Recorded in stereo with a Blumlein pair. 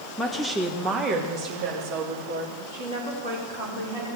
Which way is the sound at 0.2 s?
5° left.